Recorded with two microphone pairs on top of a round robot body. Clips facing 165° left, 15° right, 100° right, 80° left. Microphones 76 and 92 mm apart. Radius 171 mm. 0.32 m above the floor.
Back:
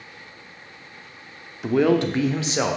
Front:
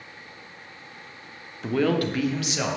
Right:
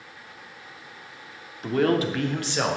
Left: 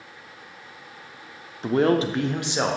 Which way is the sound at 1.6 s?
125° left.